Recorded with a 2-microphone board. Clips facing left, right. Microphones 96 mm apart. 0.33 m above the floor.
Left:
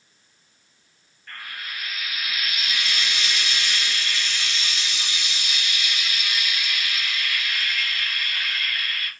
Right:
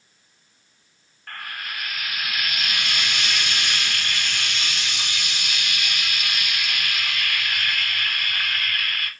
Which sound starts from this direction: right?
Frying, at 1.3 s.